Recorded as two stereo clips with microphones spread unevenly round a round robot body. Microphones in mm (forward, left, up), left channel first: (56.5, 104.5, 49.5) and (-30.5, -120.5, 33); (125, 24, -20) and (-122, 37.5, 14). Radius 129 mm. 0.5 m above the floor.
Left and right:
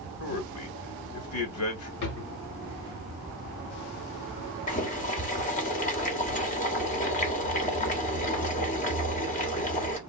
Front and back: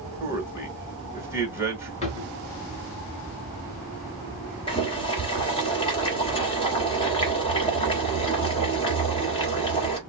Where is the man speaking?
95° left, 1.7 m.